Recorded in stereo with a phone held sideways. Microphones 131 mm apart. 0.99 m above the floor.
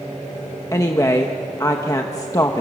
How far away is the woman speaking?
About 1.0 m.